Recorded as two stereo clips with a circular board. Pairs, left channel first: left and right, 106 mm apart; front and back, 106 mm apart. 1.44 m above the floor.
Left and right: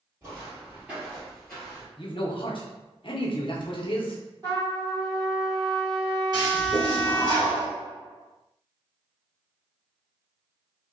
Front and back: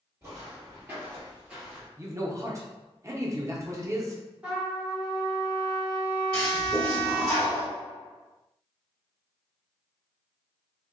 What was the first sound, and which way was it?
Footsteps, 135° right.